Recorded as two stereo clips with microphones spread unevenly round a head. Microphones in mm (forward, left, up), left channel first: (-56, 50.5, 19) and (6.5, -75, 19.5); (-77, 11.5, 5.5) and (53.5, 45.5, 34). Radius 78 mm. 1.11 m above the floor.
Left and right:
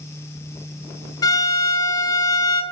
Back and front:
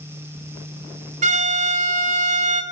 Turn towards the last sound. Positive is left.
turn(degrees=50)